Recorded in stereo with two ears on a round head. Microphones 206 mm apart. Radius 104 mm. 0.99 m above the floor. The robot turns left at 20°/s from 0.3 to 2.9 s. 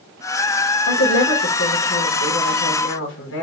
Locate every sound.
0.9 s a woman speaking: 110° left, 1.1 m; by 3.4 s 70° left, 1.1 m